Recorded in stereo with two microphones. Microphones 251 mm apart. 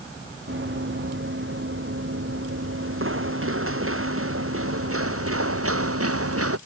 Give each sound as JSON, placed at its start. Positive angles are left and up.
{"t": 0.5, "sound": "running footsteps", "side_deg": -50}